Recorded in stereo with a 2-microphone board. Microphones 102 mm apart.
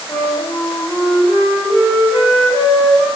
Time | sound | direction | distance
0.1 | a flute | 40° left (ahead or behind) | 1.5 m